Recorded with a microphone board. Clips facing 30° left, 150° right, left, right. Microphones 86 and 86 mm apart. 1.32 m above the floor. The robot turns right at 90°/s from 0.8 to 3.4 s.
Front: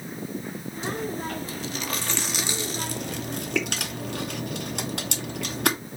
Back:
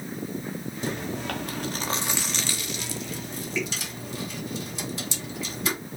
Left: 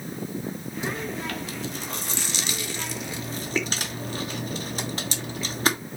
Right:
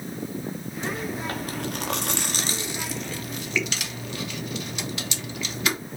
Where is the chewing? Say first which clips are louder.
Front 1 dB, right 1 dB; 170° left, 0.8 m; by 5.8 s 40° left, 0.8 m.